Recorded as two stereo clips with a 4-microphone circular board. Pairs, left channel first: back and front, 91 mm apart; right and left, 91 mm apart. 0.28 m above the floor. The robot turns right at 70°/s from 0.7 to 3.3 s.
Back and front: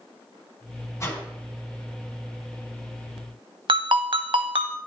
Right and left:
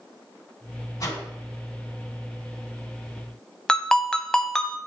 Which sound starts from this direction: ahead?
A ringtone, at 3.7 s.